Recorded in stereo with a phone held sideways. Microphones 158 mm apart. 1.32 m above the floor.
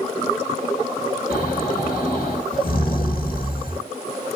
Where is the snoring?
65° left (ahead or behind), 1.9 m.